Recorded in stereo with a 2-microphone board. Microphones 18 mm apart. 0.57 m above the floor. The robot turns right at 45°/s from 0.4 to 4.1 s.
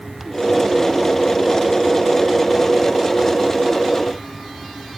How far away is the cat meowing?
No cat meowing in this recording.